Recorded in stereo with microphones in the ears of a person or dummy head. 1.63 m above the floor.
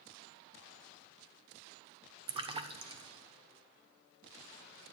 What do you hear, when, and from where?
2.3 s a splash: 25° right (ahead or behind), 1.0 m